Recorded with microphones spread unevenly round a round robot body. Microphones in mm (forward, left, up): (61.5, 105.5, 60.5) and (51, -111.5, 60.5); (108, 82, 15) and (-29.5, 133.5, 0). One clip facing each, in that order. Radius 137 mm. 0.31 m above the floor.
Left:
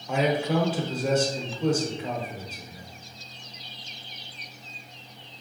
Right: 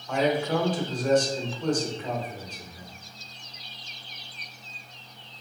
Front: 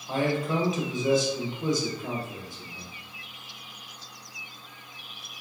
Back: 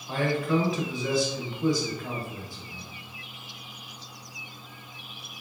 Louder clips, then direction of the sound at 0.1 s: Even, back 1 dB; 20° left.